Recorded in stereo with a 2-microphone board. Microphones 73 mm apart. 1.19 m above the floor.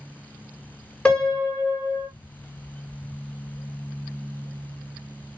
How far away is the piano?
About 1.3 m.